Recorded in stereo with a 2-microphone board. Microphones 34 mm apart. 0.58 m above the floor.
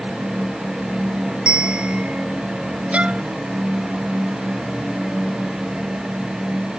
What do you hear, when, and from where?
1.5 s a bell: 25° right (ahead or behind)
2.9 s a violin: 40° right (ahead or behind)